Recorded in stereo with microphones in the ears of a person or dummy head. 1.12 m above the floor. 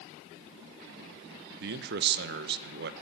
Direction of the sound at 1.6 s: 55° right (ahead or behind).